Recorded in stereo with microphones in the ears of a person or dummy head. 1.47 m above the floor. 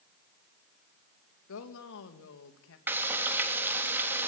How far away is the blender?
No blender in this recording.